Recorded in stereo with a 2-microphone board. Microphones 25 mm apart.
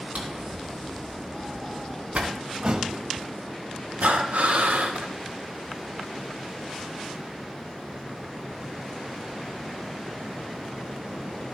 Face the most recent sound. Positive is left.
turn(degrees=-80)